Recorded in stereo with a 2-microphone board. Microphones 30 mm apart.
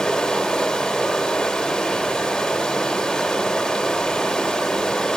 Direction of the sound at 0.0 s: 20° left (ahead or behind).